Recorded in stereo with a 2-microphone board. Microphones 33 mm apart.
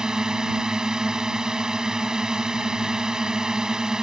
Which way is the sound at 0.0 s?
20° right (ahead or behind).